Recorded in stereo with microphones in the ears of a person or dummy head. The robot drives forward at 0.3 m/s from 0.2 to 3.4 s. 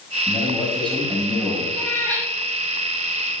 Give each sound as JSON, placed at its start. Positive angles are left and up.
{"t": 0.3, "sound": "a man speaking", "side_deg": 0, "distance_m": 5.0}
{"t": 1.7, "sound": "a cat meowing", "side_deg": 10, "distance_m": 4.0}